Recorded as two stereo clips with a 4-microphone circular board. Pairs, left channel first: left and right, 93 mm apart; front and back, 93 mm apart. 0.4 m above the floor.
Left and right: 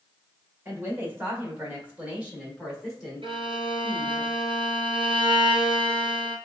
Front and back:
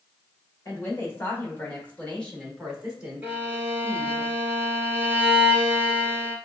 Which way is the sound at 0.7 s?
40° right.